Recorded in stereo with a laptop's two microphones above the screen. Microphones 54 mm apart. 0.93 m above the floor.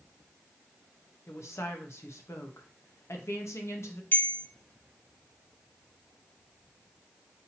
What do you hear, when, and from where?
1.3 s a woman speaking: 55° left (ahead or behind), 0.8 m
4.1 s a bell: 40° left (ahead or behind), 0.6 m